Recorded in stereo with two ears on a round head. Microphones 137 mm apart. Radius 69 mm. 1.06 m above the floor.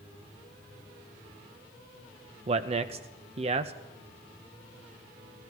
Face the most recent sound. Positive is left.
turn(degrees=-40)  # may be behind; listen again after turning